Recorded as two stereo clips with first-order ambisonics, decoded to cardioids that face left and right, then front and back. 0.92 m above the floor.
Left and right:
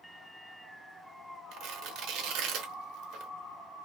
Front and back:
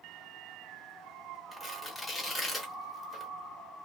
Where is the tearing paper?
80° right, 0.8 m.